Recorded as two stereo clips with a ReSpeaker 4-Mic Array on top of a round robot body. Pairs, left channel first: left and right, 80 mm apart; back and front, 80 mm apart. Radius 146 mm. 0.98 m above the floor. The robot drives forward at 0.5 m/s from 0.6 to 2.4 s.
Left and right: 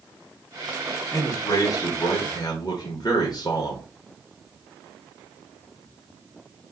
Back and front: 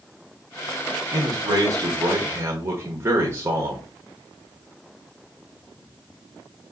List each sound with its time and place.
1.1 s a man speaking: 40° left, 1.6 m; by 3.9 s 60° left, 1.2 m